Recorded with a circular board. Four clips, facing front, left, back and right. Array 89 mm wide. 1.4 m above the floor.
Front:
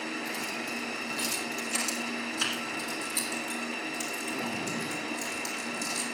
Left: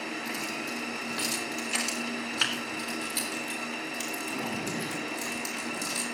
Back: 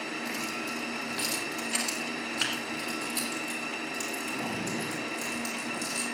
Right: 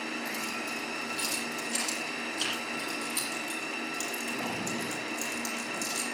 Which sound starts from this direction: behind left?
Keys jangling, at 0.2 s.